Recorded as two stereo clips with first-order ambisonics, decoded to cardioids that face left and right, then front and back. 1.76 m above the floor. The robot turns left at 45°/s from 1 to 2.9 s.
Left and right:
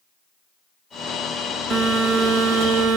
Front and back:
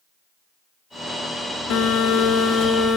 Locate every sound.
1.7 s a phone buzzing: straight ahead, 2.0 m; by 3.0 s 55° right, 2.0 m